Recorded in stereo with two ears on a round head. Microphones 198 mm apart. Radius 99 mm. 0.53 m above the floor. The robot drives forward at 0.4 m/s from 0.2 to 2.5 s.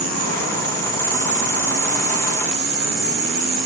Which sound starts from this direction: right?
An insect, at 0.0 s.